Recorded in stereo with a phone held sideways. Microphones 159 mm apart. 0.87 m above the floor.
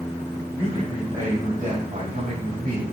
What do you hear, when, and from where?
0.5 s a man speaking: 25° right (ahead or behind), 4 m; by 2.8 s 50° right (ahead or behind), 4.5 m